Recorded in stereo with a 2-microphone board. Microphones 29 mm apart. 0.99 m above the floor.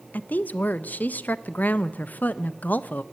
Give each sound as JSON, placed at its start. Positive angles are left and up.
{"t": 0.1, "sound": "a woman speaking", "side_deg": 65, "distance_m": 0.5}